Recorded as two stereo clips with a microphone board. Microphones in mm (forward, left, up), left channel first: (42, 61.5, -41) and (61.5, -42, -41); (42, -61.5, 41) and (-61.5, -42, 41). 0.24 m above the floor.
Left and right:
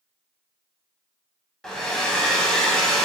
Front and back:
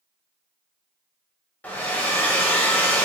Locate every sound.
1.6 s a hair dryer: 30° left, 0.7 m